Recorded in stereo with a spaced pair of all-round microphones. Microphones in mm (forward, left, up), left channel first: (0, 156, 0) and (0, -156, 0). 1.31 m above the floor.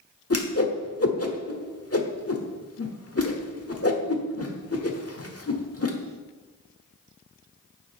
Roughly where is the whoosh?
Left.